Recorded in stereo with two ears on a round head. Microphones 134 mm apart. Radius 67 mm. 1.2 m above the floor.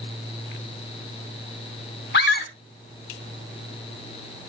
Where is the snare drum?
I don't hear a snare drum.